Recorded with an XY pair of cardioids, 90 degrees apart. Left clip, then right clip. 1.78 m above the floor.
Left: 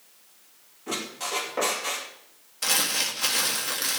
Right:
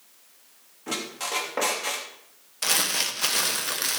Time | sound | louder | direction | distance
0.9 | a squeak | right 1 dB | 30° right | 2.5 m
2.6 | crumpling | even | 15° right | 1.6 m